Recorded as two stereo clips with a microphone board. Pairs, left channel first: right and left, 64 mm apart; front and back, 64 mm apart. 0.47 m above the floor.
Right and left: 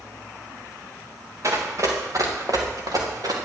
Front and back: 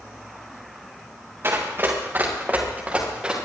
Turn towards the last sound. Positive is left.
turn(degrees=105)